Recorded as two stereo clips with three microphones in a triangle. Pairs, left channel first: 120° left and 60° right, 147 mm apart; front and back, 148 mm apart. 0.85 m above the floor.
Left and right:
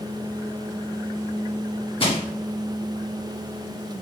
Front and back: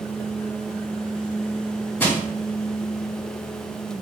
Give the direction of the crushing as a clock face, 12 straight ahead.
10 o'clock.